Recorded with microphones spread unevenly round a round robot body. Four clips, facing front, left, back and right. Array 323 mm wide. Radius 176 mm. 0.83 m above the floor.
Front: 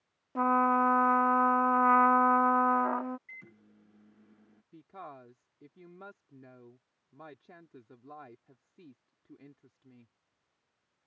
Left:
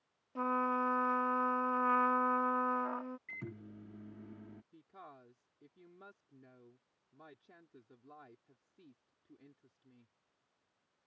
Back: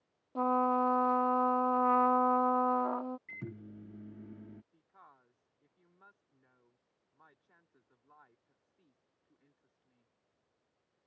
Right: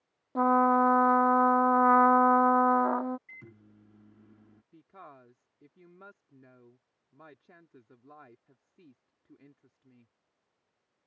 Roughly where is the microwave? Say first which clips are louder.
Left 6 dB, back 9 dB; behind left.